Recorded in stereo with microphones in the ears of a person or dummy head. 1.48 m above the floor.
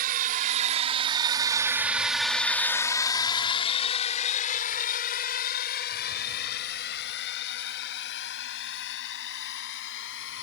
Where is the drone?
50° right (ahead or behind); by 10.4 s 70° left (ahead or behind).